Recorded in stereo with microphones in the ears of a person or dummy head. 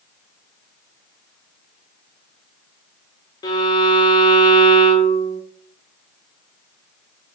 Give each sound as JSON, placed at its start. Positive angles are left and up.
{"t": 3.4, "sound": "a violin", "side_deg": 25, "distance_m": 0.5}